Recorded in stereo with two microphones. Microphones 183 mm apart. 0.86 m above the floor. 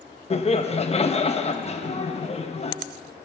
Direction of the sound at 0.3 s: 35° left (ahead or behind).